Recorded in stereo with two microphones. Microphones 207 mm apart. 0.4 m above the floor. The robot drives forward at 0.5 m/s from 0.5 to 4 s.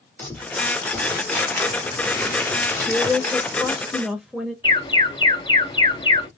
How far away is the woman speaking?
About 0.8 m.